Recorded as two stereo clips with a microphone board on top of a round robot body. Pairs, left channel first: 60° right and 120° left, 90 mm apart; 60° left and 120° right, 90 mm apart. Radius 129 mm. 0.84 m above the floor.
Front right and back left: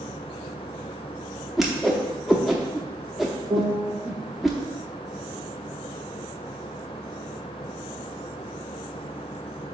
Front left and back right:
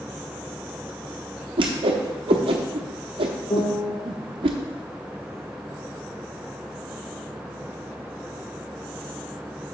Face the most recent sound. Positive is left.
turn(degrees=100)